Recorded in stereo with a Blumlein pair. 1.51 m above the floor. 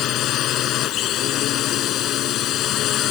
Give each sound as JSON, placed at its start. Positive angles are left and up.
{"t": 0.0, "sound": "a drone", "azimuth_deg": 35}